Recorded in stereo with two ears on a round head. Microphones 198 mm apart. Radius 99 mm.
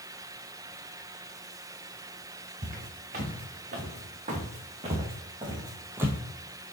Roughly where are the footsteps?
Right.